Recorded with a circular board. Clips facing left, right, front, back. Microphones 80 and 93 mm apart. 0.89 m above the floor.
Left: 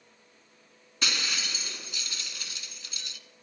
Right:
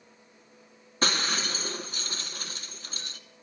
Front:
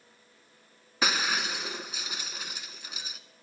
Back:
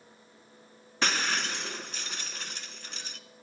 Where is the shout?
No shout in this recording.